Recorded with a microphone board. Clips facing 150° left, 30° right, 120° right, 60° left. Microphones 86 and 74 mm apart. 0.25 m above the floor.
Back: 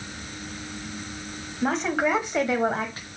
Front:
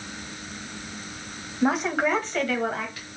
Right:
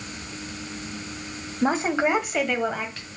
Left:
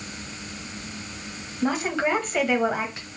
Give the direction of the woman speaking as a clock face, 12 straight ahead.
3 o'clock.